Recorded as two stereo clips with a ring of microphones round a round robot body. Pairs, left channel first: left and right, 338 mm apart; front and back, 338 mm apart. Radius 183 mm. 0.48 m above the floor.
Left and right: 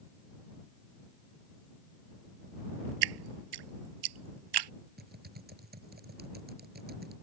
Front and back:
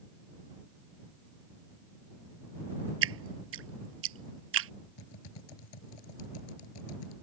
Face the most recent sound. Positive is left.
turn(degrees=-25)